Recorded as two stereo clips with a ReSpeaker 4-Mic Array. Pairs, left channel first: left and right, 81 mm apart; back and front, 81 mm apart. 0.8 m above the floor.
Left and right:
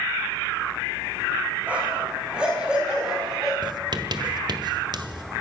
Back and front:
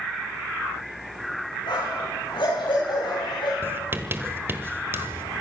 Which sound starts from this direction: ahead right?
Writing, at 3.6 s.